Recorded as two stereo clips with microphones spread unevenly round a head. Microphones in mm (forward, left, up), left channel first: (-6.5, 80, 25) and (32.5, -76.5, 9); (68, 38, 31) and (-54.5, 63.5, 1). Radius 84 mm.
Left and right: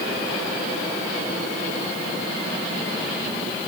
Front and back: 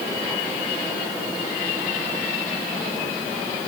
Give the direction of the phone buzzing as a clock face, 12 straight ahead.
No phone buzzing in this recording.